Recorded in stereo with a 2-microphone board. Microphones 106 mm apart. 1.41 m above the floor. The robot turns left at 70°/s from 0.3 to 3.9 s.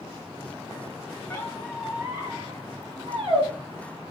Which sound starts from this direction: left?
A squeak, at 1.3 s.